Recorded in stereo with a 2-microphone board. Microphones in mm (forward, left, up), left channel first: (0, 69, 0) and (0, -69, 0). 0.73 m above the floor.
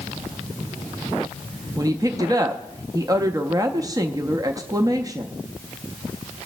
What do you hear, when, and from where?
1.8 s a woman speaking: 25° right (ahead or behind), 0.5 m